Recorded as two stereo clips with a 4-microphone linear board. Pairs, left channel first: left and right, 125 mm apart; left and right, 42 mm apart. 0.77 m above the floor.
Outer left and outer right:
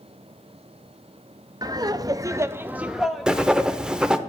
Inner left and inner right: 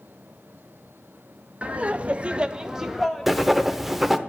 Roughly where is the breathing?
I don't hear breathing.